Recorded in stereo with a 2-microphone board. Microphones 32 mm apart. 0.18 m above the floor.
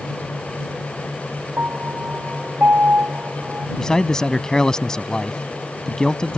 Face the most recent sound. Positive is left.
turn(degrees=20)  # may be behind; listen again after turning